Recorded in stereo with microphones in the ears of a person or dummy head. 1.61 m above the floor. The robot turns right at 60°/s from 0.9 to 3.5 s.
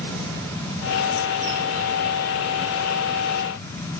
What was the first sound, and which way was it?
Only background noise.